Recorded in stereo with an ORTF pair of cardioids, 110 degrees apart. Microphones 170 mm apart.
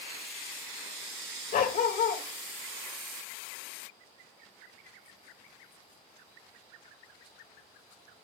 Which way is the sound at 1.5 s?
60° left.